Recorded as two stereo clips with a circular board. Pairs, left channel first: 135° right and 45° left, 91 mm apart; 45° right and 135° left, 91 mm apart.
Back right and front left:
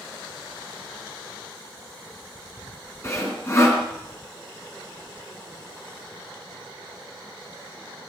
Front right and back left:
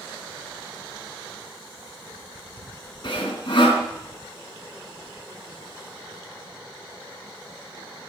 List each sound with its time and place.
3.0 s sawing: 75° right, 3 m